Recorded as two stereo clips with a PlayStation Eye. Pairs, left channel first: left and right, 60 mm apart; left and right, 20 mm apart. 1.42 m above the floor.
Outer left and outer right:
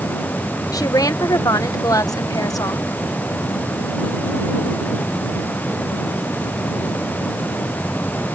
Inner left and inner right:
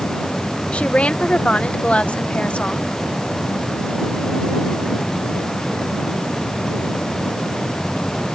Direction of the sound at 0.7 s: 80° left.